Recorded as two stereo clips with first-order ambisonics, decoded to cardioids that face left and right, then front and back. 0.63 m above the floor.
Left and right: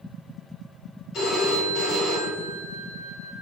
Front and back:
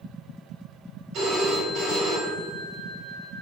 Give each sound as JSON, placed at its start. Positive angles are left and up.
{"t": 1.1, "sound": "a phone ringing", "azimuth_deg": 140, "distance_m": 1.8}